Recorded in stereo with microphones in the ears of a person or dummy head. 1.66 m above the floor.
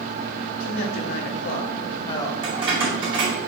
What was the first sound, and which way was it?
A man speaking, 65° left (ahead or behind).